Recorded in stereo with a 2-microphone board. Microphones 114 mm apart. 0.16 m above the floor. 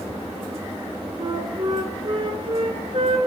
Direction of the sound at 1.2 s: 55° right (ahead or behind).